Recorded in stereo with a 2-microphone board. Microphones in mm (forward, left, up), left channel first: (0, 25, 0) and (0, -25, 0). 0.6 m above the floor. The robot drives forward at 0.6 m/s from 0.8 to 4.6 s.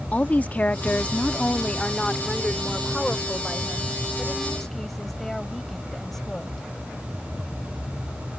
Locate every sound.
0.1 s a woman speaking: 30° left (ahead or behind); by 6.7 s 5° left (ahead or behind)